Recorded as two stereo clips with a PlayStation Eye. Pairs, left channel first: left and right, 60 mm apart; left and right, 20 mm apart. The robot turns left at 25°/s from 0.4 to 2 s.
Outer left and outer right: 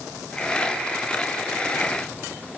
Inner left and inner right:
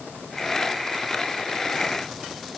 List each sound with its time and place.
Only background noise.